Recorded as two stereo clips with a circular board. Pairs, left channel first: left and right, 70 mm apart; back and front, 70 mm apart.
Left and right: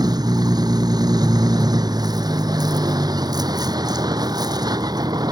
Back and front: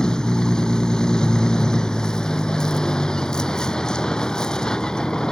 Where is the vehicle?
100° right.